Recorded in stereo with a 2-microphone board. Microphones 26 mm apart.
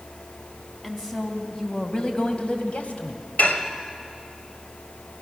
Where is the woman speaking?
10° left (ahead or behind), 3.5 m; by 3.2 s 70° left (ahead or behind), 2.5 m.